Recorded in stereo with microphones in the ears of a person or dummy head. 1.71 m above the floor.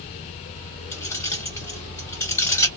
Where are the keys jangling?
15° left (ahead or behind), 0.7 m.